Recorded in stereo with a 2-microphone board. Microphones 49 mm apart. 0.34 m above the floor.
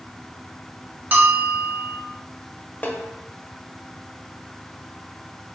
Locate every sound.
1.1 s a bell: 35° right (ahead or behind), 0.7 m
2.8 s a snare drum: 35° left (ahead or behind), 0.7 m